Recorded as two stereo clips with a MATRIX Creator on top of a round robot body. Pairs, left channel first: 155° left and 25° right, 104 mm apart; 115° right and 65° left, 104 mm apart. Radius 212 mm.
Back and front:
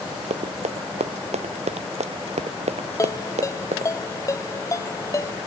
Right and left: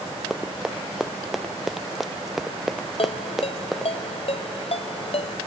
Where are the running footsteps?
20° right.